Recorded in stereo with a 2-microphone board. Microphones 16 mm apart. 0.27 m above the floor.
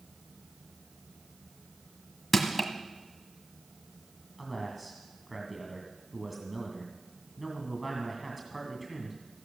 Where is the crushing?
5° left (ahead or behind), 1.6 m.